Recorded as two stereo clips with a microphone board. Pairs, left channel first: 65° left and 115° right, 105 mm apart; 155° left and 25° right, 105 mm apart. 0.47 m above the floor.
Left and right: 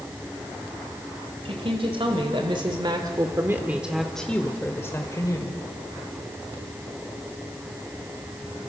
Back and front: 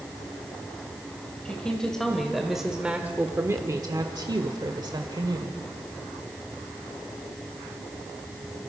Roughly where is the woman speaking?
Behind right.